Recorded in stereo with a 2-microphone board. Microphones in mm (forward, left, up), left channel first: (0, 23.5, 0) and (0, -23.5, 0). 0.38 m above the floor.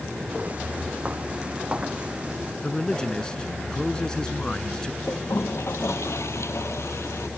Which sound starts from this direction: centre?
A man speaking, at 2.6 s.